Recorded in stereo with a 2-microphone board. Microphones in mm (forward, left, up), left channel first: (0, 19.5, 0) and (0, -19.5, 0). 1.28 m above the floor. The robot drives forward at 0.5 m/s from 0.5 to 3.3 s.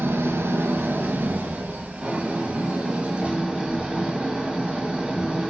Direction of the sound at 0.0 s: 70° right (ahead or behind).